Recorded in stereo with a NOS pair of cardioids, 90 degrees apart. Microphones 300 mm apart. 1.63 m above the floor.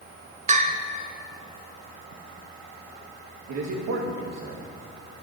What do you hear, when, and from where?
0.5 s a bell: 25° right, 1.0 m
3.5 s a man speaking: 70° right, 1.9 m